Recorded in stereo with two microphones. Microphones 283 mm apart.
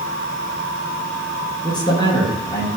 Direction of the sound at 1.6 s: 15° left (ahead or behind).